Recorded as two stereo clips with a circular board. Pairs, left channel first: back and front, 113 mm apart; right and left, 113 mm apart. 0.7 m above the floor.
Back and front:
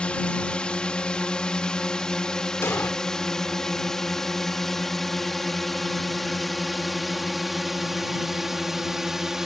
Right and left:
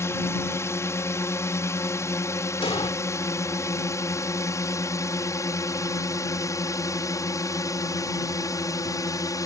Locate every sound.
0.0 s a drone: 110° right; by 9.5 s 85° right
2.6 s an explosion: 115° right